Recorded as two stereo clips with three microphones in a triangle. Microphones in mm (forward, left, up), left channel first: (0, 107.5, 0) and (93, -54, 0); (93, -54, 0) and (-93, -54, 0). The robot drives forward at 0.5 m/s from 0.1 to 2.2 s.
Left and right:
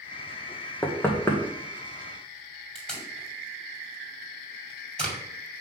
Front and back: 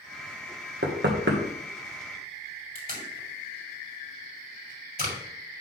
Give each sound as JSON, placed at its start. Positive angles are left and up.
{"t": 0.8, "sound": "knocking", "azimuth_deg": -160, "distance_m": 1.2}
{"t": 2.8, "sound": "tape being pulled", "azimuth_deg": -155, "distance_m": 2.0}